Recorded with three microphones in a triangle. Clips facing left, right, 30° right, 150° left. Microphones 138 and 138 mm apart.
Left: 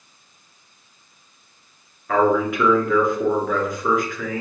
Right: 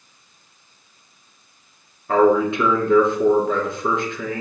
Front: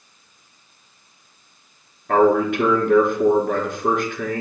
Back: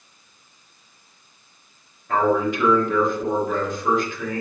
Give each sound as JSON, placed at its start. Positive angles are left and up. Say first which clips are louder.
{"t": 2.1, "sound": "a man speaking", "louder": "right 3 dB, front 4 dB", "azimuth_deg": -30, "distance_m": 3.0}